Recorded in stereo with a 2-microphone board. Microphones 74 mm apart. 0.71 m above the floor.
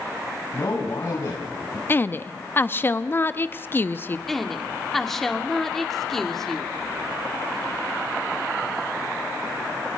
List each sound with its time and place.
0.5 s a man speaking: 45° left (ahead or behind), 5 m; by 1.8 s 55° left (ahead or behind), 5 m
1.9 s a woman speaking: 30° left (ahead or behind), 0.8 m
4.3 s a woman speaking: 5° left (ahead or behind), 2.0 m